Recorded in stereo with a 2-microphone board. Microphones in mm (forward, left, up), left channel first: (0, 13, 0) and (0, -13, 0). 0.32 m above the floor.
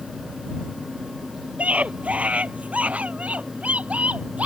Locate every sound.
1.6 s a scream: 55° right (ahead or behind)